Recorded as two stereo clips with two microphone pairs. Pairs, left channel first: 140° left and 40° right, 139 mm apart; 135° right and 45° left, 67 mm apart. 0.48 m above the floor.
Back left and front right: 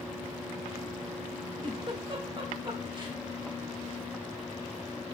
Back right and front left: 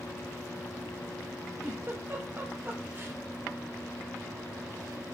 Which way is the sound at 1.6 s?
Straight ahead.